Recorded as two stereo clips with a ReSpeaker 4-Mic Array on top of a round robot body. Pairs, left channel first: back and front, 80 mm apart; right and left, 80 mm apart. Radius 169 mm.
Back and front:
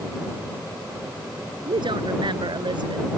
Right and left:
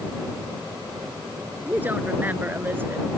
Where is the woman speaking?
20° left; by 3.1 s 25° left.